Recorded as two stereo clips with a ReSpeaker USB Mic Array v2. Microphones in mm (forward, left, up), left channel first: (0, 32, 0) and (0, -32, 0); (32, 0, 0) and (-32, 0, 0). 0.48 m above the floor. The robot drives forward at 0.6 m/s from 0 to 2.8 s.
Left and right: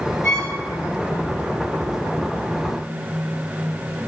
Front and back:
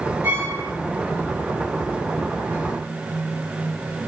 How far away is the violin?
About 1.3 m.